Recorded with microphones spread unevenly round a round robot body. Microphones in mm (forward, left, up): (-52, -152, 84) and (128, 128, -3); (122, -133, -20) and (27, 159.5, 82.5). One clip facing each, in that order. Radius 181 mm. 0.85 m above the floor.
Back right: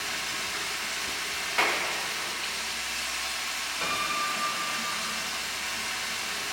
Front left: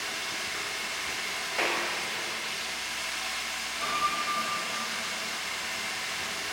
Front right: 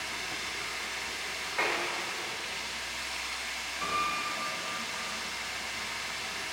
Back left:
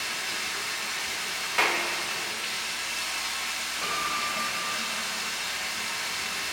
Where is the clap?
165° left, 1.1 m.